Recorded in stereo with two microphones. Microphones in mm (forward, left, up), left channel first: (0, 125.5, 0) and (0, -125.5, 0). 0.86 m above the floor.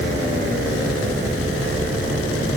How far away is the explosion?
No explosion in this recording.